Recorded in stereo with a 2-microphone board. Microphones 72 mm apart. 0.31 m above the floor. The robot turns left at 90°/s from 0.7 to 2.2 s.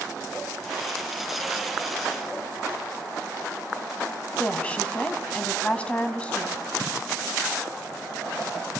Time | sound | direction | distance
4.4 | a woman speaking | 15° left (ahead or behind) | 1.9 m